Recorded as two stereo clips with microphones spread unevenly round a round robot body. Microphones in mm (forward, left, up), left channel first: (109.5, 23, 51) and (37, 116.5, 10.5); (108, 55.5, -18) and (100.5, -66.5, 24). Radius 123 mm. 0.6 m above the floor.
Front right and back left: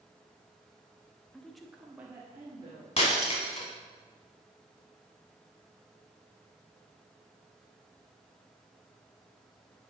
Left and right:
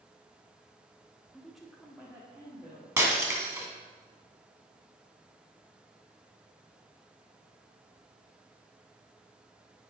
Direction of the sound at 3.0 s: 25° right.